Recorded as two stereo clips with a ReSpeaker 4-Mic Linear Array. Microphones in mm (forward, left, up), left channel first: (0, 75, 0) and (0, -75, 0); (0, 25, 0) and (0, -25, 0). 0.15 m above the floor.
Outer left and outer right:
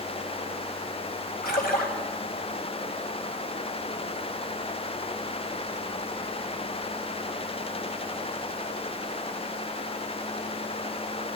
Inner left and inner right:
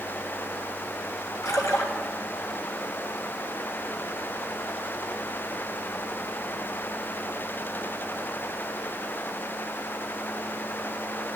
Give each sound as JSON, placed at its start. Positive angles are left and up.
{"t": 1.4, "sound": "a splash", "side_deg": 65, "distance_m": 1.8}